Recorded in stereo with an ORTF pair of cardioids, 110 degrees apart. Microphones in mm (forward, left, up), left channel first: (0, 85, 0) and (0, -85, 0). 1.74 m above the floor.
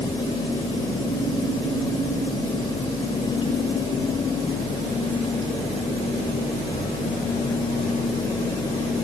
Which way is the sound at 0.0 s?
30° left.